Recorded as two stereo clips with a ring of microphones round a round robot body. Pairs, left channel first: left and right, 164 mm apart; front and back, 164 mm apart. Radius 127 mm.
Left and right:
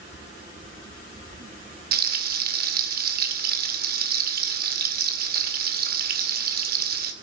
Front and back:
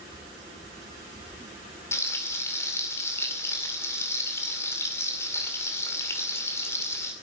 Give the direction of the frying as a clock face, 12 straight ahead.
3 o'clock.